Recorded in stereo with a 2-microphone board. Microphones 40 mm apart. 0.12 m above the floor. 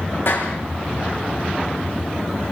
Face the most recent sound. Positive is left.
turn(degrees=70)  # may be behind; listen again after turning